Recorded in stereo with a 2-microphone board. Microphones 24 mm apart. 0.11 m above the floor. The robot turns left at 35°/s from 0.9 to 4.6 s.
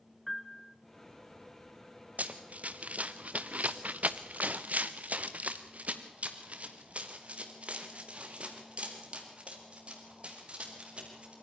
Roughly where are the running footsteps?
Right.